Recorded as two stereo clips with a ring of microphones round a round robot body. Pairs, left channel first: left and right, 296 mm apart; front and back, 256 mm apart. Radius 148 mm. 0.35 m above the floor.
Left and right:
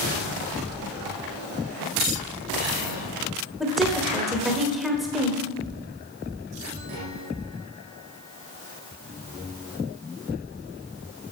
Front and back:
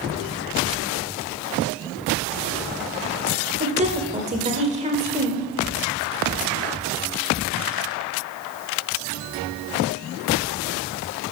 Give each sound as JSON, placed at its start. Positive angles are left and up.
{"t": 3.6, "sound": "a woman speaking", "azimuth_deg": 180, "distance_m": 1.3}